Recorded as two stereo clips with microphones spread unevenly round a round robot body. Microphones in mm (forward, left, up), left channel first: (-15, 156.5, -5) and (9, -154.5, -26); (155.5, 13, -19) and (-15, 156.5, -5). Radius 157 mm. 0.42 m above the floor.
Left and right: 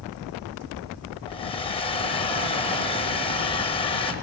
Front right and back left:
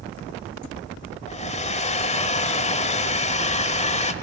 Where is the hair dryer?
20° left, 0.8 m.